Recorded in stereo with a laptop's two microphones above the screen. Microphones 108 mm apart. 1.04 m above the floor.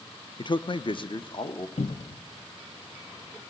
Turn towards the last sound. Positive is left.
turn(degrees=70)  # may be behind; listen again after turning